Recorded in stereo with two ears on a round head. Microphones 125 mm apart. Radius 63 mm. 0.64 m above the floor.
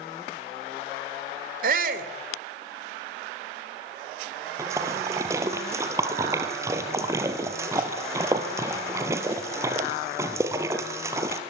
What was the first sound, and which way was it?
A shout, 65° right (ahead or behind).